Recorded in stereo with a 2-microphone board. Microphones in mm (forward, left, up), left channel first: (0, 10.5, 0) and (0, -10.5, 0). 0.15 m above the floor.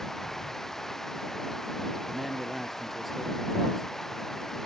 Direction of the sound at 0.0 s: 15° left (ahead or behind).